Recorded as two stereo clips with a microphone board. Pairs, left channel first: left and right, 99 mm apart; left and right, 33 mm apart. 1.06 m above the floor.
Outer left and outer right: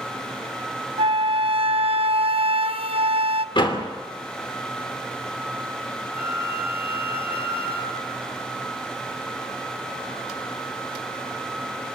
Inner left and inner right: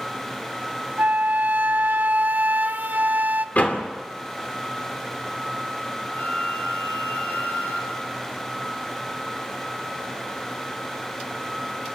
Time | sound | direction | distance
1.0 | a flute | 70° right (ahead or behind) | 0.6 m
3.5 | a door slam | 55° left (ahead or behind) | 2.5 m
6.1 | a flute | 85° left | 4 m